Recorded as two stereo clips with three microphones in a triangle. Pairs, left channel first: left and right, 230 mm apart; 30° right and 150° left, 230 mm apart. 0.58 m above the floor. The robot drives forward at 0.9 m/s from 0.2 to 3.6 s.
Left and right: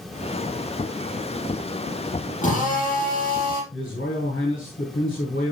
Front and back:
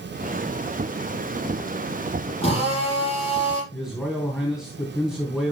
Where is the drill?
35° left, 8 m; by 3.6 s 40° left, 7 m.